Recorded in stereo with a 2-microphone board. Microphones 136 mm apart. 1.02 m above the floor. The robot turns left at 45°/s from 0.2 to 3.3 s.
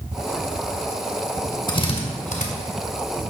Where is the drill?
35° left (ahead or behind), 2 m; by 2.5 s 70° left (ahead or behind), 2 m.